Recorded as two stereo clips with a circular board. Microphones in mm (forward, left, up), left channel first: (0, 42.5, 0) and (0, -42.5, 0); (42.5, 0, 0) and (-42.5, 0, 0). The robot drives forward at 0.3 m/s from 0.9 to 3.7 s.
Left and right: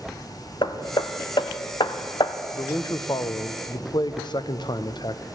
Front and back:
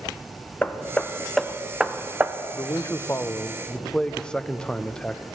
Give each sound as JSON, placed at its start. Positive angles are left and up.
{"t": 0.6, "sound": "hammering", "azimuth_deg": 75, "distance_m": 0.7}
{"t": 2.5, "sound": "a man speaking", "azimuth_deg": 45, "distance_m": 0.7}